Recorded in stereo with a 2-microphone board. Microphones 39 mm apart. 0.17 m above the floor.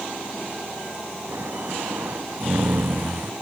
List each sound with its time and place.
1.3 s snoring: 70° right (ahead or behind)